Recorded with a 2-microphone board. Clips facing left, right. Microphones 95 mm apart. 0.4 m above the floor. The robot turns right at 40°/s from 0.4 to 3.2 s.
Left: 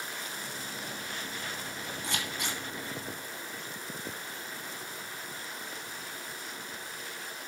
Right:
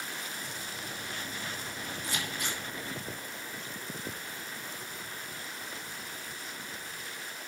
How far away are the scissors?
About 2 m.